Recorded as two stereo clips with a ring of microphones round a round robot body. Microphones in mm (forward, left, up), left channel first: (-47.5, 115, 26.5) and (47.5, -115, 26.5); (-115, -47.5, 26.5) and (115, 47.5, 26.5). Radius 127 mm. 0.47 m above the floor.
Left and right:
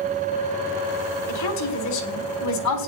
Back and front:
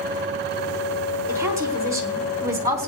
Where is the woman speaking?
100° left, 4 m.